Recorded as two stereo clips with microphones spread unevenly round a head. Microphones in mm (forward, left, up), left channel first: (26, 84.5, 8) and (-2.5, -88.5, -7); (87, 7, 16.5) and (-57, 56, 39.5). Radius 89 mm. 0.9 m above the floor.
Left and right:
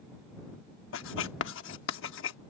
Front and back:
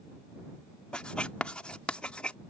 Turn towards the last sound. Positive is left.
turn(degrees=65)